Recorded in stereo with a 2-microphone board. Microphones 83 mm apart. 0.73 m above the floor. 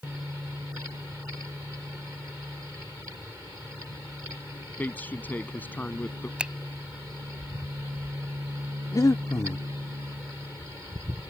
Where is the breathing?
40° left (ahead or behind).